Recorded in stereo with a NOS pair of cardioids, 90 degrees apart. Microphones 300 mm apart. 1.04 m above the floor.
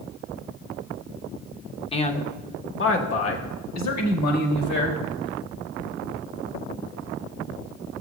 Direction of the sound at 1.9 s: 20° left.